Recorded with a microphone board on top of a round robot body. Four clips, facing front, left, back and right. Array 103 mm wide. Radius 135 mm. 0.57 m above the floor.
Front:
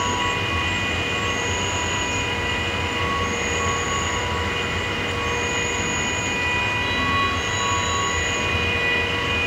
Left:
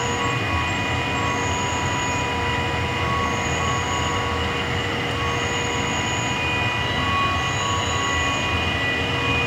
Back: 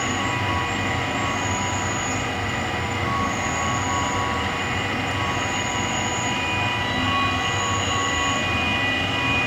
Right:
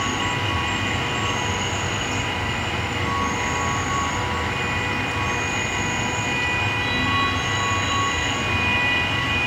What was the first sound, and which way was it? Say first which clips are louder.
An insect: left 1 dB, front 1 dB; 135° left.